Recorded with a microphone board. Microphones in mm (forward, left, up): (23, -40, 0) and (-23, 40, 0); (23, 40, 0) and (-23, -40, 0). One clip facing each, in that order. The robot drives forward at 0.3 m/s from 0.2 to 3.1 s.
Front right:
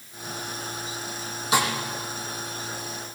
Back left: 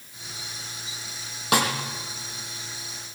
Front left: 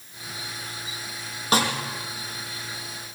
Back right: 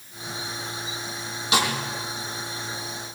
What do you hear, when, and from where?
1.5 s a snare drum: 105° left, 5 m